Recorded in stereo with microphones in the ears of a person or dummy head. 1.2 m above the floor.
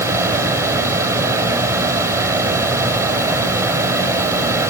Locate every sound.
0.0 s a fan: 15° right (ahead or behind), 3 m